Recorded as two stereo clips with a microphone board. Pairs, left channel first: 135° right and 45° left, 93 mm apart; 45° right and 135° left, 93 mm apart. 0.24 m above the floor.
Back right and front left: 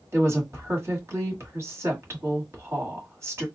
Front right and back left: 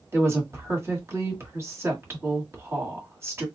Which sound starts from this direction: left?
A woman speaking, at 0.1 s.